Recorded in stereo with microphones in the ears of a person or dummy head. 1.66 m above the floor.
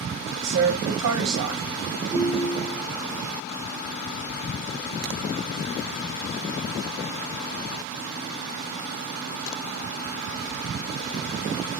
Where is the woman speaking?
70° right (ahead or behind), 0.9 m.